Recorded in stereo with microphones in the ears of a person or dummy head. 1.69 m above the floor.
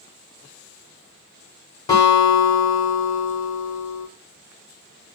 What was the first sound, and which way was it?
A guitar, 25° left (ahead or behind).